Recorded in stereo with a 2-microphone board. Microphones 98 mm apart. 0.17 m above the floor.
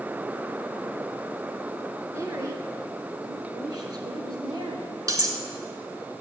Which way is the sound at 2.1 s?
30° right (ahead or behind).